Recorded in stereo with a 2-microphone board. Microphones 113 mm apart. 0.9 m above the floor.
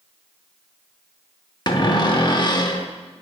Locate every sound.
1.7 s a cupboard door: 40° left (ahead or behind), 0.6 m